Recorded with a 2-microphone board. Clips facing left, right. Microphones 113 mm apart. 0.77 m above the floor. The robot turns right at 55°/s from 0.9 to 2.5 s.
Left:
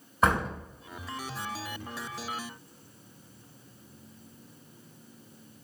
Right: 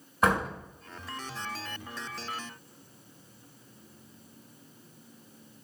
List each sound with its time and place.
0.2 s a door slam: centre (ahead or behind), 3 m